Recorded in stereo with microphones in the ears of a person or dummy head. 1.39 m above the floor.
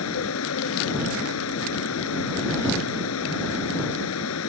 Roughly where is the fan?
Left.